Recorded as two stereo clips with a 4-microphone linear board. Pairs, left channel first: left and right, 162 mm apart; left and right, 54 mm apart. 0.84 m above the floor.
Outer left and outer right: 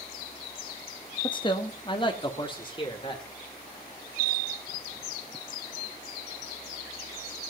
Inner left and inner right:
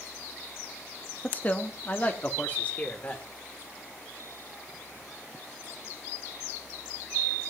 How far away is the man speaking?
About 1.1 m.